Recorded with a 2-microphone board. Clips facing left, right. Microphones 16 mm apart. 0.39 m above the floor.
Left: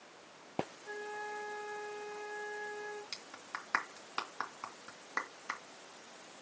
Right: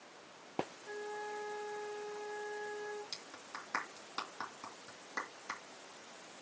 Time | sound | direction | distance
0.8 | a flute | 40° left (ahead or behind) | 2.5 m
3.1 | a clap | 75° left (ahead or behind) | 2.5 m